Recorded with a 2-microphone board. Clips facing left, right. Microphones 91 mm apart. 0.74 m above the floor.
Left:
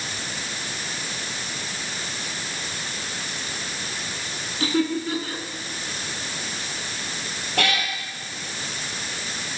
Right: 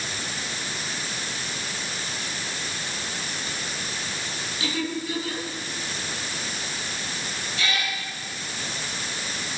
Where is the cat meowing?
75° left (ahead or behind), 5 m.